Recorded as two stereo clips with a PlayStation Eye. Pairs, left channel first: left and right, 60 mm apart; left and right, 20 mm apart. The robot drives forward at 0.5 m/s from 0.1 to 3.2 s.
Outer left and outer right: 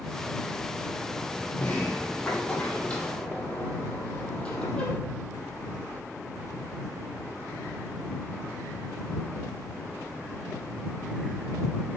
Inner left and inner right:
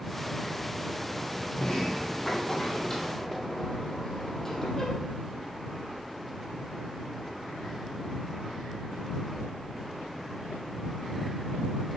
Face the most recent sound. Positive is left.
turn(degrees=15)  # may be behind; listen again after turning